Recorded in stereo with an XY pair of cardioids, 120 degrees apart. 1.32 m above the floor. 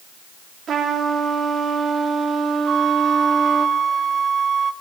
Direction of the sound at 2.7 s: 45° right.